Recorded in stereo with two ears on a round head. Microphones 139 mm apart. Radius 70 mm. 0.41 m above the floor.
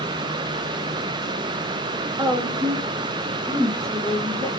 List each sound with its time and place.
2.2 s a woman speaking: 30° right (ahead or behind), 1.3 m; by 4.5 s 20° left (ahead or behind), 1.7 m